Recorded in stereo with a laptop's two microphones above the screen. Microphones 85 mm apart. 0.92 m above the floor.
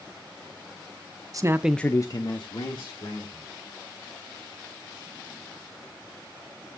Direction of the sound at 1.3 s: 45° right (ahead or behind).